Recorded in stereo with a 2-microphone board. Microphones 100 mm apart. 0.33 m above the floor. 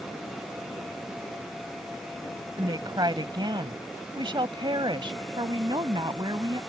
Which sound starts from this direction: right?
A woman speaking, at 2.6 s.